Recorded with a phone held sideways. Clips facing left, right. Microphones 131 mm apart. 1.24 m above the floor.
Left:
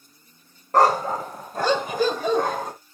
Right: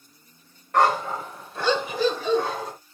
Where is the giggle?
I don't hear a giggle.